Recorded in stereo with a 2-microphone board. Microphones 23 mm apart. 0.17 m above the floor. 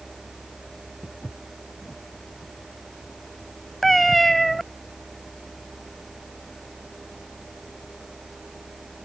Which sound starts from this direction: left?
Footsteps, at 1.0 s.